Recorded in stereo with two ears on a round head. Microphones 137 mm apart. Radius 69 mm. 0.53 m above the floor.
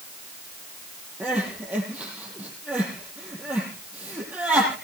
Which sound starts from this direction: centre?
Crying, at 1.2 s.